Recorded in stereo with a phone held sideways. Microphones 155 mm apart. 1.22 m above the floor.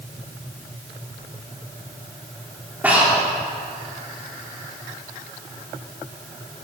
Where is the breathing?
10° right (ahead or behind), 3.5 m.